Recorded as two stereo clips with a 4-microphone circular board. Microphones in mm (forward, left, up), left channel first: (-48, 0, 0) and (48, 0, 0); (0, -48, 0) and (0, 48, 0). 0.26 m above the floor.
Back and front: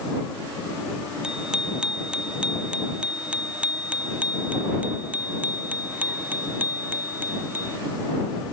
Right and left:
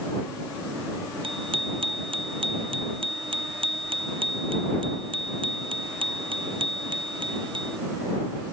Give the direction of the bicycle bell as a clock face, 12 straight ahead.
9 o'clock.